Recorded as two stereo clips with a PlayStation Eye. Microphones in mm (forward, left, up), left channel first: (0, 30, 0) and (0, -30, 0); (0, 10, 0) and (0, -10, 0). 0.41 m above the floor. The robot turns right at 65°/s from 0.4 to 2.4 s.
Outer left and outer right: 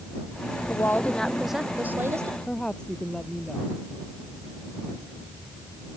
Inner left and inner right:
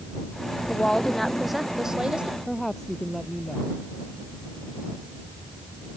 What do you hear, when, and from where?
0.7 s a woman speaking: 135° left; by 2.4 s 120° right
2.5 s a woman speaking: 15° left (ahead or behind)